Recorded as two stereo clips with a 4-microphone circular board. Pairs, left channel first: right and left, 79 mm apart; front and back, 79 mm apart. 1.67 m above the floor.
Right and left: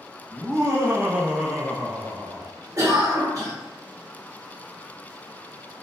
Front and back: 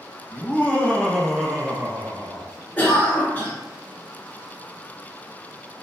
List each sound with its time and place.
0.3 s laughter: 55° left, 0.8 m; by 2.5 s 130° right, 0.7 m
2.8 s a cough: 60° left, 0.9 m